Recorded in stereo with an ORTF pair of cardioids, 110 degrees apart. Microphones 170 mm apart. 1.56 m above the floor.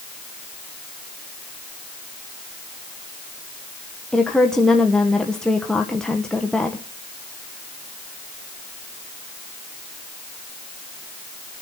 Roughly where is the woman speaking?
Ahead.